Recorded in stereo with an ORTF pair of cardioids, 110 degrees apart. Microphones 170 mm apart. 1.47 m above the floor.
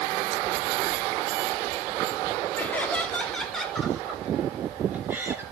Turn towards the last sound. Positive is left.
turn(degrees=-15)